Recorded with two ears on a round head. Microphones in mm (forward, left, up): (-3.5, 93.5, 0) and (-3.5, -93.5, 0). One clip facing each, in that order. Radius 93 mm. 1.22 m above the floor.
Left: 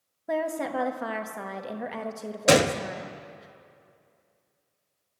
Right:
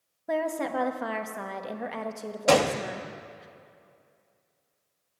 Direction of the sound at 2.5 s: 20° left (ahead or behind).